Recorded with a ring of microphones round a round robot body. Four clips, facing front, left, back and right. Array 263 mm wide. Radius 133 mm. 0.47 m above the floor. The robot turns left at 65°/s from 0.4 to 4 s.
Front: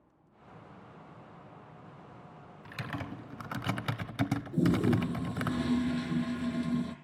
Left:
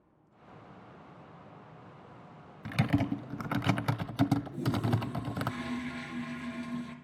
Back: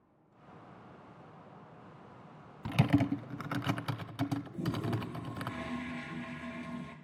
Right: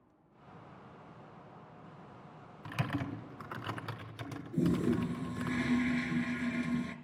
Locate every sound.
2.6 s typing on a keyboard: 155° left, 0.9 m; by 5.5 s 65° left, 0.9 m
4.5 s a toilet flushing: 25° right, 1.9 m